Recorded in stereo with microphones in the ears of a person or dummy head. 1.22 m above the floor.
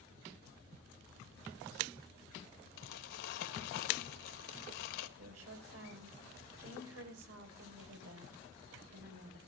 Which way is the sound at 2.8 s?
65° left (ahead or behind).